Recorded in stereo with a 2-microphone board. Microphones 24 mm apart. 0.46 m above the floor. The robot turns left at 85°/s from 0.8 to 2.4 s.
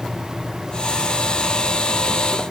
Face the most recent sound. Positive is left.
No sound to turn to.